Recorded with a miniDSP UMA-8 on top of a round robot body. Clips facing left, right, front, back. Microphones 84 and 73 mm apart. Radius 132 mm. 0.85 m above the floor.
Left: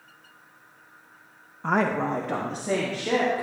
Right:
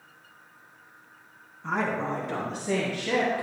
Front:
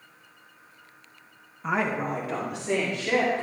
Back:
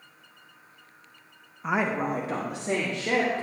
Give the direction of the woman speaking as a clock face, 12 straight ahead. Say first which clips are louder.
Left 4 dB, even; 9 o'clock.